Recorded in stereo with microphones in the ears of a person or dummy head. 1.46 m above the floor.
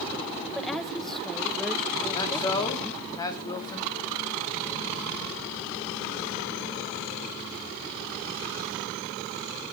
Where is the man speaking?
20° left (ahead or behind), 3 m.